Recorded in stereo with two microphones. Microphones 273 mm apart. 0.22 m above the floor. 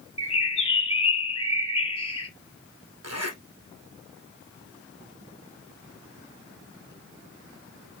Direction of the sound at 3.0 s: 60° right (ahead or behind).